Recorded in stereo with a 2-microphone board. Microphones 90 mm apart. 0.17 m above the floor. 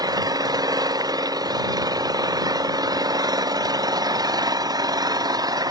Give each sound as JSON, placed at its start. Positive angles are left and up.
{"t": 0.0, "sound": "an engine running", "side_deg": -45}